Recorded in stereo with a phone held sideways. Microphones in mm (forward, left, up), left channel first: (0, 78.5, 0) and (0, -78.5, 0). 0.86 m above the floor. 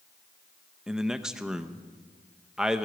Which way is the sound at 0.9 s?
5° right (ahead or behind).